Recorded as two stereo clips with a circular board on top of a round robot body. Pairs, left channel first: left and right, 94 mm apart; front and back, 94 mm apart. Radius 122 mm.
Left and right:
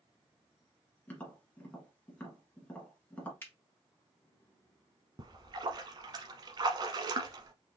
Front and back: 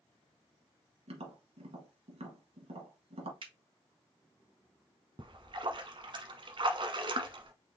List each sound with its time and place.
1.1 s tapping: 165° left, 1.7 m
3.4 s a finger snap: 155° left, 2.0 m
5.2 s a splash: 140° right, 0.9 m